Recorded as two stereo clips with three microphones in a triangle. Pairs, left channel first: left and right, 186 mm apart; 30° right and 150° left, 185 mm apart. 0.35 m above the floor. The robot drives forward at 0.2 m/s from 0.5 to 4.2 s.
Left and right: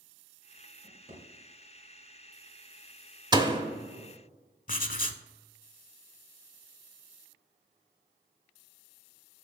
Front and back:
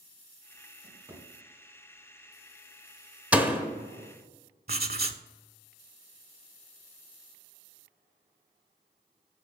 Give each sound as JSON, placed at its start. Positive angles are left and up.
{"t": 0.8, "sound": "a drawer", "azimuth_deg": -135, "distance_m": 2.0}
{"t": 3.3, "sound": "a door slam", "azimuth_deg": -135, "distance_m": 1.0}
{"t": 4.7, "sound": "writing", "azimuth_deg": 125, "distance_m": 0.5}